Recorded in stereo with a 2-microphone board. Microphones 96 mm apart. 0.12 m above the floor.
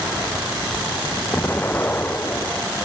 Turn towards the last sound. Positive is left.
turn(degrees=20)  # may be behind; listen again after turning